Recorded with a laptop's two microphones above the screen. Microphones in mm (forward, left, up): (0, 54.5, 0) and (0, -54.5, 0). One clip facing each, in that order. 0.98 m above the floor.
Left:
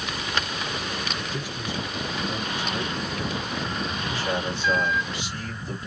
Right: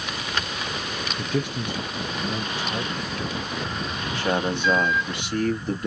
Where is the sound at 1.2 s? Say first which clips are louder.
Right 6 dB; 65° right (ahead or behind), 0.7 m; by 4.0 s 5° right (ahead or behind), 1.5 m.